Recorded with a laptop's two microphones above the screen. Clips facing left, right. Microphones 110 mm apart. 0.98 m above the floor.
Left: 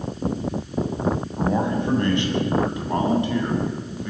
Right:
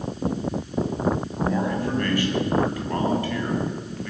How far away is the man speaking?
About 8.5 m.